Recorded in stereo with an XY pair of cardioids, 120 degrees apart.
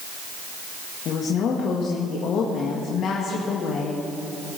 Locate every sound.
1.1 s a woman speaking: 60° left, 1.6 m